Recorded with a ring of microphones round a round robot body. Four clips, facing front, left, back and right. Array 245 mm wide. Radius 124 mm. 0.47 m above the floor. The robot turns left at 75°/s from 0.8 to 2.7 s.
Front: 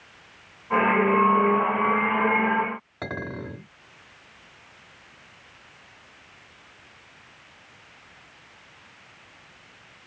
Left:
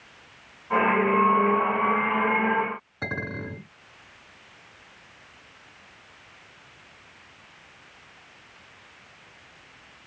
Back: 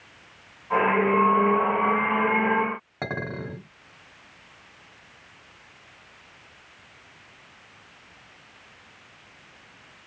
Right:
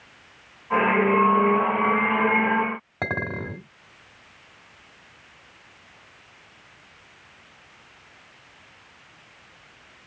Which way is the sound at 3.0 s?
100° right.